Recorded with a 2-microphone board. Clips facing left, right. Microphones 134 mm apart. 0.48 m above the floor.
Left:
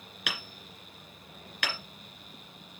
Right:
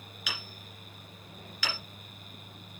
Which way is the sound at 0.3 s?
60° left (ahead or behind).